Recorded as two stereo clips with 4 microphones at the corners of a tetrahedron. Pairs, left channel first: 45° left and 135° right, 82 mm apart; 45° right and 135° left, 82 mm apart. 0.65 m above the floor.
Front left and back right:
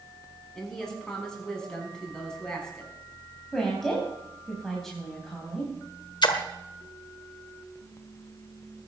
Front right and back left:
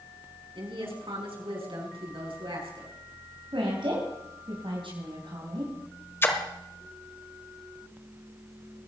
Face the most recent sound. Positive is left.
turn(degrees=15)